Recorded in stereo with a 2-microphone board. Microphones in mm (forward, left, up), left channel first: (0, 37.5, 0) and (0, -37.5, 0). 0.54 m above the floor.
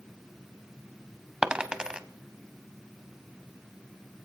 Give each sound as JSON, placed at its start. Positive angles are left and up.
{"t": 1.4, "sound": "a dropped coin", "side_deg": -10, "distance_m": 0.7}